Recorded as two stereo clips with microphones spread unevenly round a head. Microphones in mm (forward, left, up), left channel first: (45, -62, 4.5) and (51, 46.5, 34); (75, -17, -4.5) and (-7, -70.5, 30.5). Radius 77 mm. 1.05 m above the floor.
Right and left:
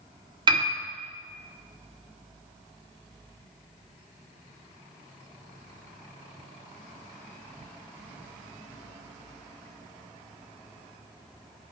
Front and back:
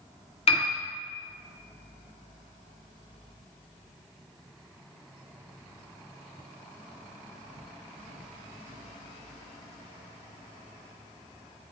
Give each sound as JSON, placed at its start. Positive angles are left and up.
{"t": 0.5, "sound": "a piano", "azimuth_deg": 35, "distance_m": 1.7}